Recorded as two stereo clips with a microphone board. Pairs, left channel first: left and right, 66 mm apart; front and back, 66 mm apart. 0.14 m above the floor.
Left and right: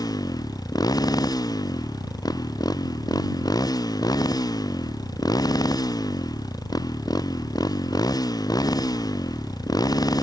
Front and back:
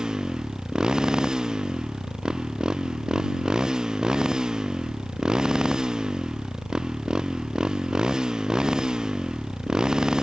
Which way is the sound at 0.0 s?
100° left.